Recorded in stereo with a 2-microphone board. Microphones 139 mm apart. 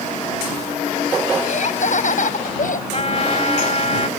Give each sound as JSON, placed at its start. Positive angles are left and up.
{"t": 1.4, "sound": "laughter", "side_deg": 60}
{"t": 2.9, "sound": "a trumpet", "side_deg": 50}